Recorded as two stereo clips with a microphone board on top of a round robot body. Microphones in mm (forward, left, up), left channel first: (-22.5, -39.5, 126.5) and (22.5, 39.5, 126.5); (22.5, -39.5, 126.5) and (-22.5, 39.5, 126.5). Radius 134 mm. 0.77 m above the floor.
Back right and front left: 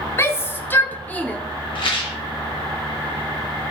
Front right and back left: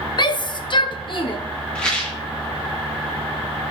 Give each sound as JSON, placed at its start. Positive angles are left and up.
{"t": 0.2, "sound": "a shout", "azimuth_deg": -70, "distance_m": 1.3}
{"t": 1.8, "sound": "a rattle", "azimuth_deg": -140, "distance_m": 2.5}